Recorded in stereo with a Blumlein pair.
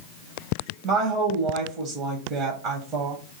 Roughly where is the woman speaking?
Ahead right.